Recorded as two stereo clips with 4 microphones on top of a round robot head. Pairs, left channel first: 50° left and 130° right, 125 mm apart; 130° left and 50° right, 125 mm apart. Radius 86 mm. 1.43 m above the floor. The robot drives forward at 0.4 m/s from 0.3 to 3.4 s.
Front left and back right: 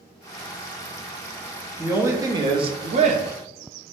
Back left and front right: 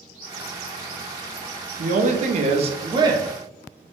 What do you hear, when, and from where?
1.8 s a woman speaking: 55° right, 0.6 m; by 3.3 s 115° right, 0.6 m